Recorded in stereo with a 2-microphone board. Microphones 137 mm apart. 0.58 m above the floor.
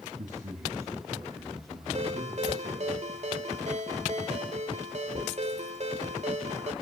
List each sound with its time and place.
0.2 s a man speaking: 70° right (ahead or behind), 3 m; by 2.9 s 45° right (ahead or behind), 6.5 m
1.9 s a ringtone: 55° right (ahead or behind), 1.7 m